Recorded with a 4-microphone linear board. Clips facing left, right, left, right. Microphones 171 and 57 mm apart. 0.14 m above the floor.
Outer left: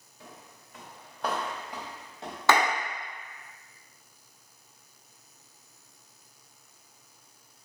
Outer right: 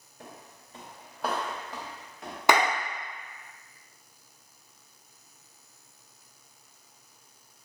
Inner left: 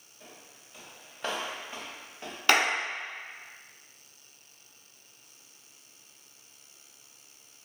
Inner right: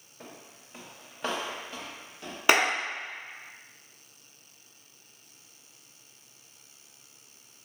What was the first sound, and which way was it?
Footsteps, 55° right (ahead or behind).